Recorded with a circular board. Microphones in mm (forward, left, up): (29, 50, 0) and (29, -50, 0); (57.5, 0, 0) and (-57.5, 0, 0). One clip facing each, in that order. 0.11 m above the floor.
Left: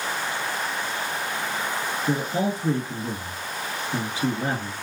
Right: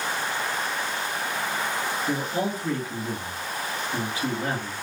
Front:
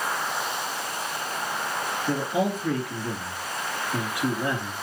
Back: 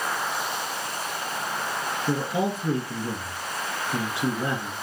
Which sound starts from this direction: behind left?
A man speaking, at 2.1 s.